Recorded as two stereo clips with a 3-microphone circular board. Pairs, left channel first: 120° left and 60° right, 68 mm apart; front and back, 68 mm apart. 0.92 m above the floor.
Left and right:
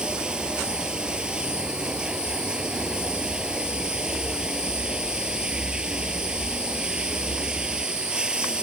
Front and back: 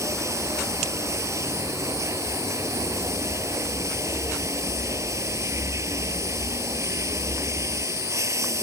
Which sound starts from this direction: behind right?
Running water, at 0.0 s.